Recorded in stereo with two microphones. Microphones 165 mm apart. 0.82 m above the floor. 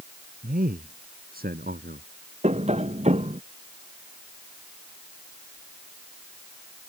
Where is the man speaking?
60° right (ahead or behind); by 2.1 s 65° right (ahead or behind).